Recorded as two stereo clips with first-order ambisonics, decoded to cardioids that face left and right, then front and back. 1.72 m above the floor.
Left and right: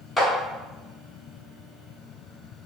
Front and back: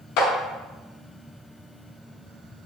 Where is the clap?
10° left, 0.6 m.